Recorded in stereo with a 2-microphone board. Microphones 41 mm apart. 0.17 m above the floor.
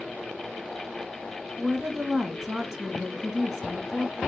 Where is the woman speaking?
10° right (ahead or behind), 1.7 m.